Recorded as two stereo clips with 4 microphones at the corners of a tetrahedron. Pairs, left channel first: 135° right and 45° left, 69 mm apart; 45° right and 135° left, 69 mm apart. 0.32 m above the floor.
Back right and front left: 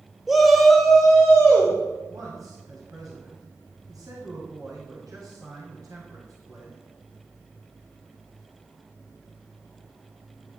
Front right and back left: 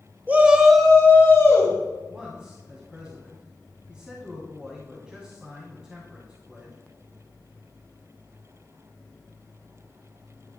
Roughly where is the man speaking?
Ahead left.